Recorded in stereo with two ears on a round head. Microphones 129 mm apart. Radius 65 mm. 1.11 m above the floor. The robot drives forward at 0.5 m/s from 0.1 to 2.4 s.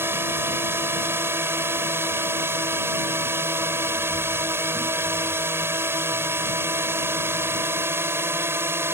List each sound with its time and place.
0.0 s a drone: 15° right (ahead or behind)